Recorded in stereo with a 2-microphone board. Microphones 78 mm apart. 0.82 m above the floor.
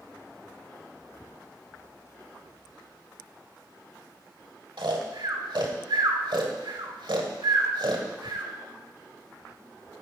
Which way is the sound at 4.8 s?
80° right.